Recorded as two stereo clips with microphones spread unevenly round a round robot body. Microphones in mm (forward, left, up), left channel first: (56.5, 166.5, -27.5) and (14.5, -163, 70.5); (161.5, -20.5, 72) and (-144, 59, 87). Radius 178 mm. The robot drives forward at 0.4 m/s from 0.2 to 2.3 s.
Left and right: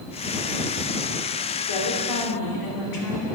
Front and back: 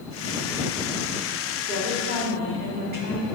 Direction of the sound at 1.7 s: 100° left.